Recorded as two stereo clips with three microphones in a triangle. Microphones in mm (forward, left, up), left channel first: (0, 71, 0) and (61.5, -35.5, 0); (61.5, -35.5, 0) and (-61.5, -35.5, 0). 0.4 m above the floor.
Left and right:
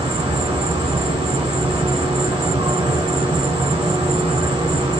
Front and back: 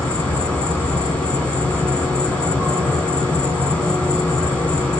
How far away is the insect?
About 1.5 m.